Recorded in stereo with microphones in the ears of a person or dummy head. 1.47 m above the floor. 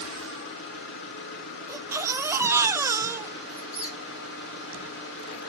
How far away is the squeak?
About 4.5 m.